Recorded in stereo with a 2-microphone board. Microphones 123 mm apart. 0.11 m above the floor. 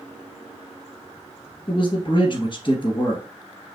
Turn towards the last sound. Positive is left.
turn(degrees=35)  # may be behind; listen again after turning